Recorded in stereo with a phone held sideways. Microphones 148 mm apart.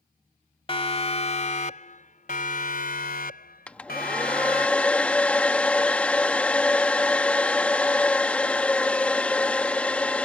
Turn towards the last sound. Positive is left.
turn(degrees=10)  # may be behind; listen again after turning